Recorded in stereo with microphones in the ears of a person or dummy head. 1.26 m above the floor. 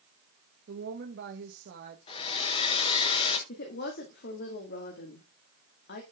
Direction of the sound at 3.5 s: 60° left (ahead or behind).